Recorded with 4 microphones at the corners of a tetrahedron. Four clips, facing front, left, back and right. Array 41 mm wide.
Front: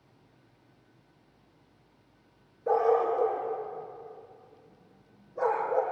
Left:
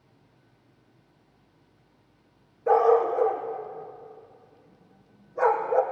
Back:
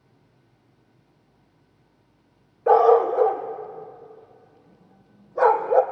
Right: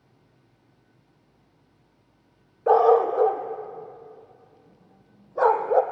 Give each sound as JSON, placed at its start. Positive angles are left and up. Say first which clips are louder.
{"t": 2.7, "sound": "a dog barking", "louder": "right 2 dB, back 9 dB", "azimuth_deg": -145, "distance_m": 2.0}